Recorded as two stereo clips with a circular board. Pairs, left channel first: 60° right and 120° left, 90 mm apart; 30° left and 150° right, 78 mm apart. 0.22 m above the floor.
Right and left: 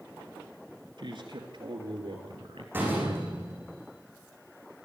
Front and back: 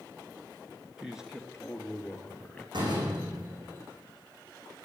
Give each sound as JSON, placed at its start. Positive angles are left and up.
{"t": 1.0, "sound": "a man speaking", "azimuth_deg": 130, "distance_m": 3.5}
{"t": 2.7, "sound": "a door slam", "azimuth_deg": -170, "distance_m": 9.5}